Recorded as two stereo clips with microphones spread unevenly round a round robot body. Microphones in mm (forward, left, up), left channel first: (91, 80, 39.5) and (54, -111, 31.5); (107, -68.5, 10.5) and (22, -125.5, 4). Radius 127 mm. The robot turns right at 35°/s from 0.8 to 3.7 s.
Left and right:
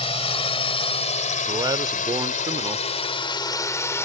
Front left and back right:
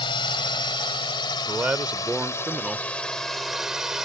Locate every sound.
0.0 s a drone: 30° left; by 4.0 s 140° left
1.5 s a man speaking: 120° right; by 2.9 s 70° right